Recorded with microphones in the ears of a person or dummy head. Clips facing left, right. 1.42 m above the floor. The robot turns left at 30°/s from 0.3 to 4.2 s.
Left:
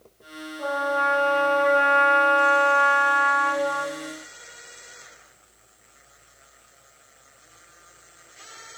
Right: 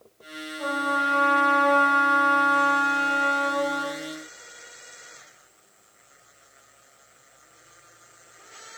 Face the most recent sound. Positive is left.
turn(degrees=-10)